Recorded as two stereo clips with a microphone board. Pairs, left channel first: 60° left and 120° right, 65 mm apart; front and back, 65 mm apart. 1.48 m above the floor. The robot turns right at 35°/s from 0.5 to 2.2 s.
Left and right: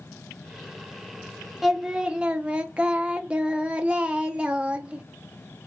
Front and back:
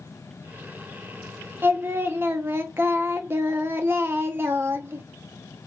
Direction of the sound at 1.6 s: 160° left.